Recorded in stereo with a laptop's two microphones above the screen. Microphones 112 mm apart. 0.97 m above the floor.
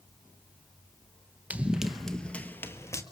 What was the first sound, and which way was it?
Running footsteps, 15° right (ahead or behind).